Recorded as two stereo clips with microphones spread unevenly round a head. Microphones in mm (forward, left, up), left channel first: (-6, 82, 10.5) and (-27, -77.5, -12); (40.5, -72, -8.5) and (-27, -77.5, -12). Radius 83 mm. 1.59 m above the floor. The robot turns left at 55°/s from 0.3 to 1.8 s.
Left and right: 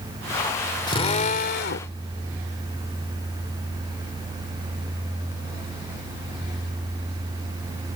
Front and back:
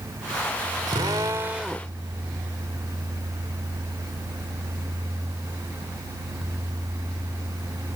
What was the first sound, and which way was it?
A drill, 140° left.